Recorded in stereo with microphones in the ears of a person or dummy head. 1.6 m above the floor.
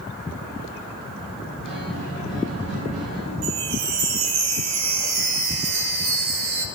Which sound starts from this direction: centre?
A guitar, at 1.6 s.